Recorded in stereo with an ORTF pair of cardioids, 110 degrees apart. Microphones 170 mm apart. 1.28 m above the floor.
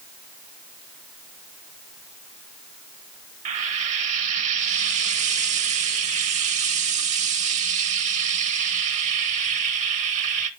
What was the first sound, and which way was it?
Frying, 45° right.